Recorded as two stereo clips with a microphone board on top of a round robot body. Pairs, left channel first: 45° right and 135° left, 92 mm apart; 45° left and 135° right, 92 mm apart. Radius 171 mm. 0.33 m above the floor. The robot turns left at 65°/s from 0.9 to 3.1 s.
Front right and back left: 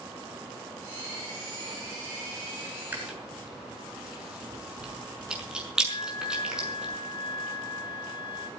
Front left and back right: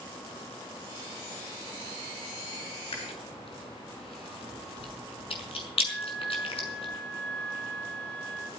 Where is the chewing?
65° left, 5.5 m; by 6.8 s 55° left, 5.5 m.